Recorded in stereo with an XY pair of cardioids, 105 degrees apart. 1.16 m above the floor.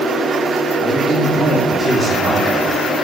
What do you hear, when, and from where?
0.8 s a man speaking: 35° right, 2 m